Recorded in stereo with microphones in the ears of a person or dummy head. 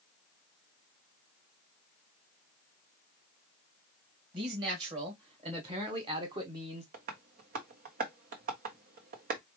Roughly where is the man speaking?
Right.